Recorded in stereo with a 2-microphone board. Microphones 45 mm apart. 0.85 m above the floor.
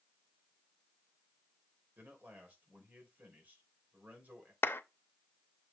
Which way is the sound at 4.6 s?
55° left (ahead or behind).